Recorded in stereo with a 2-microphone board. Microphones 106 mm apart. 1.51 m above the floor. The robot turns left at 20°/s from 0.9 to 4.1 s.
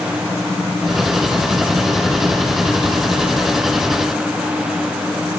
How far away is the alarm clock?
I don't hear an alarm clock.